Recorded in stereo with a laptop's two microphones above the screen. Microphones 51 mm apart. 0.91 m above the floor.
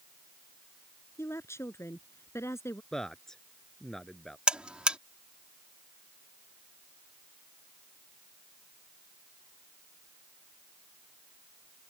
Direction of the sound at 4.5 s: 20° right (ahead or behind).